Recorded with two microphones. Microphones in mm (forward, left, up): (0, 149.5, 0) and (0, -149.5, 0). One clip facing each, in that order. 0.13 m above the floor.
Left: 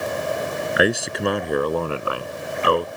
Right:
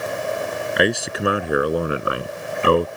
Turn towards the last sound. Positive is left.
turn(degrees=-35)  # may be behind; listen again after turning